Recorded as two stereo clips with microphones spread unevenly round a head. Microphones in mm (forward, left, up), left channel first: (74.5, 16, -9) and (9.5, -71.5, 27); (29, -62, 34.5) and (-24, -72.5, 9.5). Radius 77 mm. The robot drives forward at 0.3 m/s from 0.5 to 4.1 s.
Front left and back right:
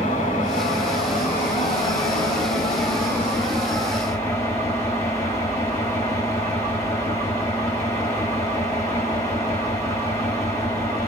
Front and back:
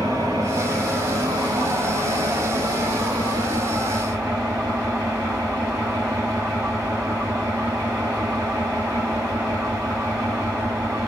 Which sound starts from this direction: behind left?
An engine running, at 0.0 s.